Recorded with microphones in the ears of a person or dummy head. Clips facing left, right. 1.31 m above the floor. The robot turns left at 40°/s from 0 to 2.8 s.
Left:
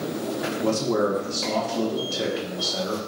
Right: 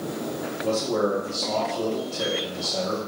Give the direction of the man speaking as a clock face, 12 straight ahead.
8 o'clock.